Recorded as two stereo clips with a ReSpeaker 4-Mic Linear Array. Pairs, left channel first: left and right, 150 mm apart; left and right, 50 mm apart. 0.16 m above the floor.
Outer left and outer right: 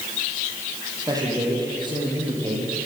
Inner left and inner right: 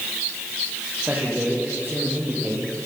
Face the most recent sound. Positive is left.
turn(degrees=-35)  # may be behind; listen again after turning